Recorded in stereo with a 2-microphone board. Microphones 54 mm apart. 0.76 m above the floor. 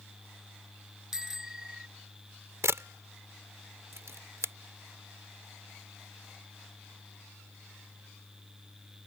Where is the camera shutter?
60° right (ahead or behind).